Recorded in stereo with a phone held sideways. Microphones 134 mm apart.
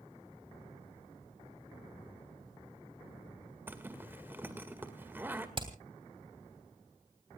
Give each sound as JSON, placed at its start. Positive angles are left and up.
{"t": 3.7, "sound": "a zipper", "side_deg": -15, "distance_m": 1.9}
{"t": 5.6, "sound": "hammering", "side_deg": -35, "distance_m": 3.0}